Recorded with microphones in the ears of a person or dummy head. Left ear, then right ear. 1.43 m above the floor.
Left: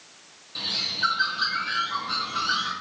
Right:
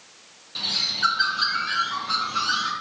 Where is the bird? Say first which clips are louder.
Right 3 dB; 10° right (ahead or behind), 1.4 m.